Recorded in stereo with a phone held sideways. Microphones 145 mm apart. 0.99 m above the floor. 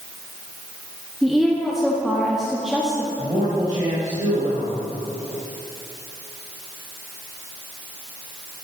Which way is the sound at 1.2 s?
Centre (ahead or behind).